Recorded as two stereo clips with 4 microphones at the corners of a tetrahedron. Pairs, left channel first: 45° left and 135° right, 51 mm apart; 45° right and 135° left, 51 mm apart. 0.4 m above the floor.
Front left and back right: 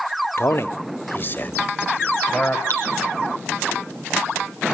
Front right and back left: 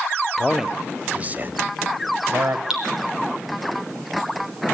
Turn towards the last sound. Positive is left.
turn(degrees=-150)